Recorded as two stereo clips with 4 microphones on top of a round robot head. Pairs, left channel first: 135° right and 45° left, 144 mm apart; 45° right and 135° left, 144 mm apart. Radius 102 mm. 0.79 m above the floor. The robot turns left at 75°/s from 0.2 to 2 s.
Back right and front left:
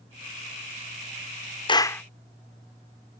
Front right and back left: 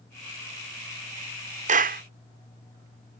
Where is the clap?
170° left; by 2.0 s 145° left.